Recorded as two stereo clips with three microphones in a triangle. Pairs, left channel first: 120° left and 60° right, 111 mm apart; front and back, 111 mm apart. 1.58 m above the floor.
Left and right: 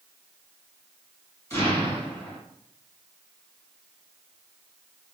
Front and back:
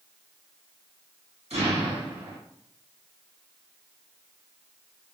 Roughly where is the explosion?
Behind.